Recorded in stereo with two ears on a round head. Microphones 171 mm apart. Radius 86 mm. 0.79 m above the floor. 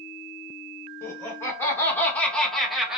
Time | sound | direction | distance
1.0 | laughter | 15° left (ahead or behind) | 0.9 m